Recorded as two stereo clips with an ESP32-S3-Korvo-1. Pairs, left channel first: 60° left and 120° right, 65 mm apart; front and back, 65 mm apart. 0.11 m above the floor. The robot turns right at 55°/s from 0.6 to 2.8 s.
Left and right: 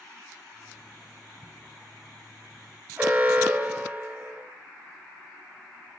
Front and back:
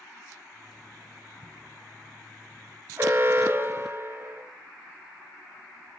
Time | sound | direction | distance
3.0 | an alarm | 160° right | 2 m